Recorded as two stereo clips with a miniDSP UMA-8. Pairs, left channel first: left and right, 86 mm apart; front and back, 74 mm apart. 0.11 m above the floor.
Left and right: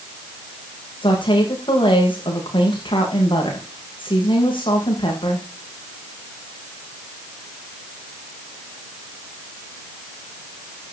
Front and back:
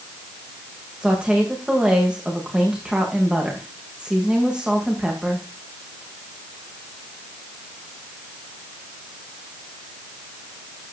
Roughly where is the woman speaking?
Left.